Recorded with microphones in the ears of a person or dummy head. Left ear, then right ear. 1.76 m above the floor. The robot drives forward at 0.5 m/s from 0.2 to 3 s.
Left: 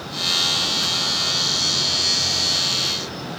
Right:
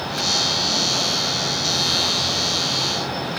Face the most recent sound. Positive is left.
No sound to turn to.